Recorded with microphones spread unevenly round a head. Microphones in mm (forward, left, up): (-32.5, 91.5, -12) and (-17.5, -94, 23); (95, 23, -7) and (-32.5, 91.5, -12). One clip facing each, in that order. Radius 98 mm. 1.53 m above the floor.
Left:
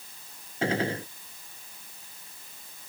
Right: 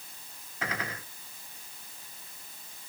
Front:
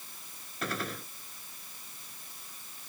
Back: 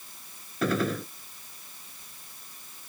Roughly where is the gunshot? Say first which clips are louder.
Left 10 dB, back 10 dB; behind.